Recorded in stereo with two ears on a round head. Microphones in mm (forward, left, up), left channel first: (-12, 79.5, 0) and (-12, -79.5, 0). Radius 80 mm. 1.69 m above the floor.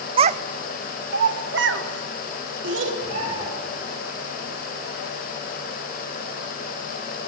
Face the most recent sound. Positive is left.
turn(degrees=-40)  # may be behind; listen again after turning